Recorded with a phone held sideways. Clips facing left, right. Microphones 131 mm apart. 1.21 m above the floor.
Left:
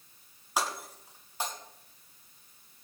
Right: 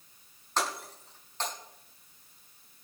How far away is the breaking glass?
About 5.5 m.